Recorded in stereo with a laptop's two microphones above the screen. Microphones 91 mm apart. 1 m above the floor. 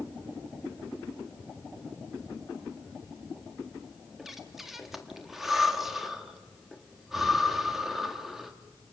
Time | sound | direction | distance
4.2 | breathing | centre (ahead or behind) | 1.6 m